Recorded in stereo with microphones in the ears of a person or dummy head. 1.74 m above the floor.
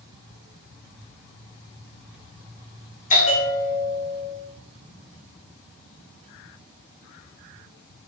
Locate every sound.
3.1 s a bell: 45° left (ahead or behind), 2.5 m